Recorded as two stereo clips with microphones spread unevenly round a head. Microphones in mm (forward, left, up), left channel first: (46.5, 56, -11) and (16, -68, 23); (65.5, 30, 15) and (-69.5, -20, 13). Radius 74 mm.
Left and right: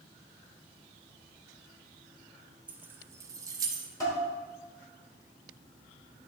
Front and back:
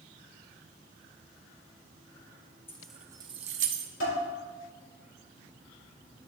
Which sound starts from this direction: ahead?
Dishes clattering, at 4.0 s.